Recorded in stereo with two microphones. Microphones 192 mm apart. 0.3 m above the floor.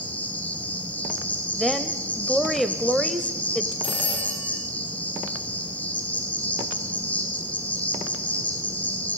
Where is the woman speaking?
Centre (ahead or behind), 1.0 m.